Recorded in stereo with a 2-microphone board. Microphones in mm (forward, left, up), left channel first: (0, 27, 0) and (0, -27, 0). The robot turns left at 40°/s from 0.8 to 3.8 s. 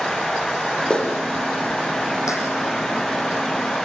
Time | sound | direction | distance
0.9 | a clap | 15° left (ahead or behind) | 8 m